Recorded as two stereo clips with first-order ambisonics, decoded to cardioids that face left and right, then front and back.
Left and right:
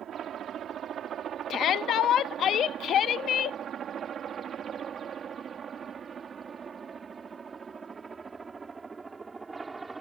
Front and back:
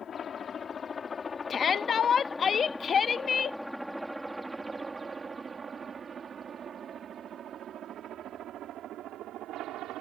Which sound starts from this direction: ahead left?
A shout, at 1.5 s.